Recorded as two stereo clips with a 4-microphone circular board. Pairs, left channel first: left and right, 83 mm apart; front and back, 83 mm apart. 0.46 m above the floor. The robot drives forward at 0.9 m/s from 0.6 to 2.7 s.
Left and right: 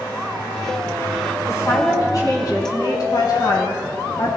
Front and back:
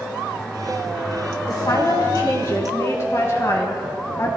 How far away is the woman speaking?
About 4 m.